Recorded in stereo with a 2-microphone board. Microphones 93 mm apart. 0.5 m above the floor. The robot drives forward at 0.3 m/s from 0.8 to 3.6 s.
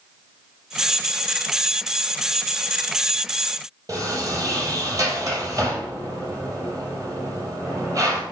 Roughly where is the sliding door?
Right.